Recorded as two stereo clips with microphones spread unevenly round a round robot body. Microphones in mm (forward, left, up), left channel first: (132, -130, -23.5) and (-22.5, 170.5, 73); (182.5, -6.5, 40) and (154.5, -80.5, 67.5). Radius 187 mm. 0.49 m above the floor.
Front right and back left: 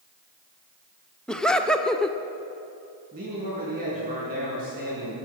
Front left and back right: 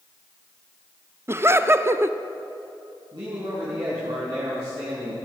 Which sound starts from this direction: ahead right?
Laughter, at 1.3 s.